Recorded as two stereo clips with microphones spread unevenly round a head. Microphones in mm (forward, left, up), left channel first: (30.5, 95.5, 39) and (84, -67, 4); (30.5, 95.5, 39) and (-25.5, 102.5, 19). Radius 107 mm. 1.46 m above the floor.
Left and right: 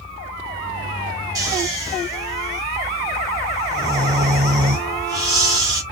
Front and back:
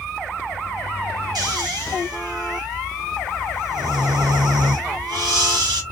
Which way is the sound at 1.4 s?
150° right.